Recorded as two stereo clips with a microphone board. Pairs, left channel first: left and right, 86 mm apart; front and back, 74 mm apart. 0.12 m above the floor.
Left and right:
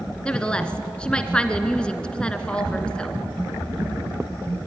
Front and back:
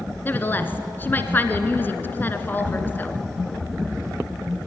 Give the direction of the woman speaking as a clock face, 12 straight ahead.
11 o'clock.